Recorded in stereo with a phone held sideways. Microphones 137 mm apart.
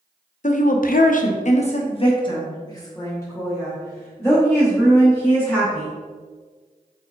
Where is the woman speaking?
60° left (ahead or behind), 0.6 m; by 5.9 s 10° left (ahead or behind), 3 m.